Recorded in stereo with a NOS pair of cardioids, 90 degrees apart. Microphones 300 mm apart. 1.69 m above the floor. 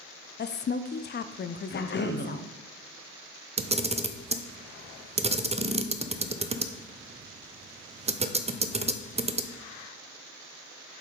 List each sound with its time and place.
0.4 s a woman speaking: 35° left, 0.5 m
1.7 s a cough: 35° left, 1.0 m
3.6 s a camera shutter: 20° right, 0.6 m